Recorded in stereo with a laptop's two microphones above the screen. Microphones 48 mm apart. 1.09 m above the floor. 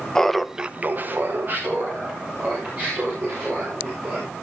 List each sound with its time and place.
0.1 s laughter: 10° left (ahead or behind), 1.0 m; by 4.3 s 35° right (ahead or behind), 5.5 m